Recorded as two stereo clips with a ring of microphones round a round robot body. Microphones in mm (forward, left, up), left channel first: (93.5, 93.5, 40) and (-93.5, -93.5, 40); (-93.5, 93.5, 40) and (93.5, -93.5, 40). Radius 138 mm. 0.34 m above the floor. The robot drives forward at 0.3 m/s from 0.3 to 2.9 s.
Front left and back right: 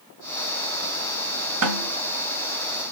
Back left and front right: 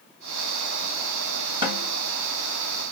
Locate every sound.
1.6 s a snare drum: 115° right, 2 m; by 1.9 s 120° right, 2 m